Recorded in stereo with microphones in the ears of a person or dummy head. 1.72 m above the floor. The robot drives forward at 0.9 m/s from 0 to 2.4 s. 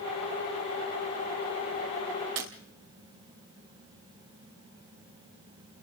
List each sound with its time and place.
2.4 s breaking glass: 70° right (ahead or behind), 3.5 m